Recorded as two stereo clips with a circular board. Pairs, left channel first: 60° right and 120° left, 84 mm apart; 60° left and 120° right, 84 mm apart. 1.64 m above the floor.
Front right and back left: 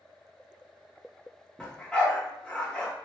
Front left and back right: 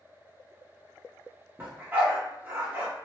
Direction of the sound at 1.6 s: 120° right.